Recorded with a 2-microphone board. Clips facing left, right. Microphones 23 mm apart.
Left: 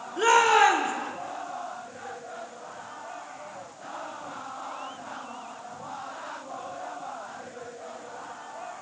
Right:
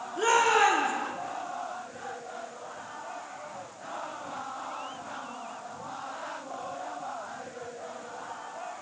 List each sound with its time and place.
0.2 s a shout: 20° left (ahead or behind), 1.2 m